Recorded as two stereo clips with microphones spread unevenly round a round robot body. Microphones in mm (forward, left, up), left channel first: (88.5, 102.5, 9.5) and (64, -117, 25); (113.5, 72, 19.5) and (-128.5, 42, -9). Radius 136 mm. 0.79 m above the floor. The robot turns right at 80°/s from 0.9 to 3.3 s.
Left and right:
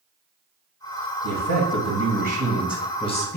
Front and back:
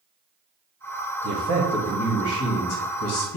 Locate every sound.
1.2 s a man speaking: 140° right, 1.1 m; by 3.4 s 25° left, 1.1 m